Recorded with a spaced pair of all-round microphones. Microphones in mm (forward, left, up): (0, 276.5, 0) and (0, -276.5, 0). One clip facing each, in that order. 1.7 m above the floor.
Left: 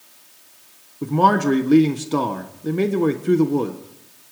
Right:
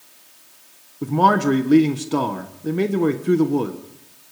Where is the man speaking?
Centre (ahead or behind), 1.2 m.